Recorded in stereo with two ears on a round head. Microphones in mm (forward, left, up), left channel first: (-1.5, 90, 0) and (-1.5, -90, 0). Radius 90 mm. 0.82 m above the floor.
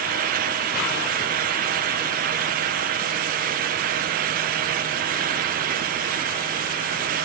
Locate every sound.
Only background noise.